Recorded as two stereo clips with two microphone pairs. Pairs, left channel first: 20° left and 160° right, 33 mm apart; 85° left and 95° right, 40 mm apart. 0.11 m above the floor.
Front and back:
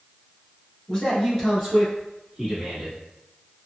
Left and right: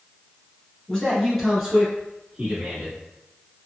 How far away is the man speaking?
About 1.3 m.